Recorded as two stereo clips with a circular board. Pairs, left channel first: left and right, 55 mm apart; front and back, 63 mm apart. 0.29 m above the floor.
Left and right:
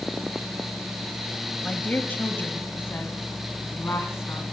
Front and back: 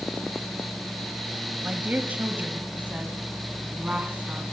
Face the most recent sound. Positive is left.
turn(degrees=115)